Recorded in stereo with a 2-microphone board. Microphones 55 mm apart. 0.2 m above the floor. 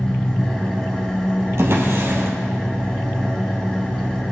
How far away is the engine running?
About 3.5 m.